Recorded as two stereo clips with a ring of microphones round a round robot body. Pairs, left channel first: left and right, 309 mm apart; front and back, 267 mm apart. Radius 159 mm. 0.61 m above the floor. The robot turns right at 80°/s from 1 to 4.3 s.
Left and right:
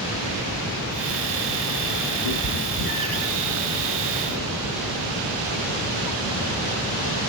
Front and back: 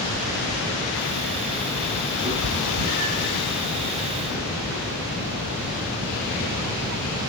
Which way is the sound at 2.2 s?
105° left.